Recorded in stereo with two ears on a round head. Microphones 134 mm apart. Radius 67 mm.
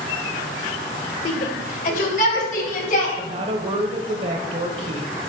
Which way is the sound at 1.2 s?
55° left (ahead or behind).